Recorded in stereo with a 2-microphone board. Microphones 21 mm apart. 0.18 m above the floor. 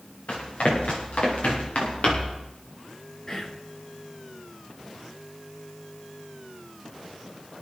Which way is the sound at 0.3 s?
80° left.